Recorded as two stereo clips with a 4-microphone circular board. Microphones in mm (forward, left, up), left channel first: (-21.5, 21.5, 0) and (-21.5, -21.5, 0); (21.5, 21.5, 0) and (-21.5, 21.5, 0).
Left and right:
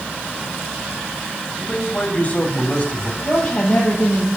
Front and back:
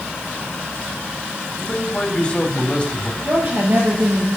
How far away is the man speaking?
About 1.9 m.